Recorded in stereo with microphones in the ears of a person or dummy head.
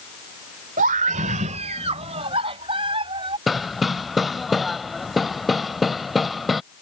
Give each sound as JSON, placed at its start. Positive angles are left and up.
{"t": 0.8, "sound": "a scream", "side_deg": -45}
{"t": 3.5, "sound": "hammering", "side_deg": 0}